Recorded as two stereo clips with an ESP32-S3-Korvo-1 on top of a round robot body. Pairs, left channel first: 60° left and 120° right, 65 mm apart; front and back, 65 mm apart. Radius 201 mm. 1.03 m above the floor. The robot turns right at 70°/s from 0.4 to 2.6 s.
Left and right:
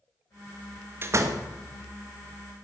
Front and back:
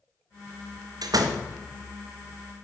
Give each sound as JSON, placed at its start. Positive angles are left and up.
{"t": 1.0, "sound": "a door slam", "azimuth_deg": -175, "distance_m": 1.5}